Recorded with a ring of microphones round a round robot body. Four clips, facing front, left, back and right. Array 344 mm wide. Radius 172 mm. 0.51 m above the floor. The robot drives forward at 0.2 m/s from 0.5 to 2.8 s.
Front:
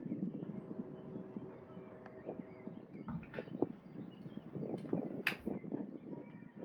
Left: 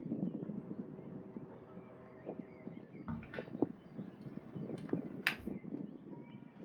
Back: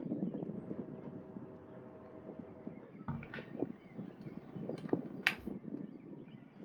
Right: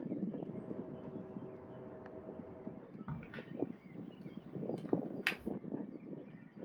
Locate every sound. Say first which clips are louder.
3.1 s a crack: left 4 dB, even; 175° left, 1.0 m